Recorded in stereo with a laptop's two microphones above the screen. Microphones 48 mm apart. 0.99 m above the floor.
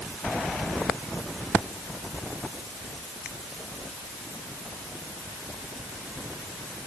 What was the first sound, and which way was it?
Only background noise.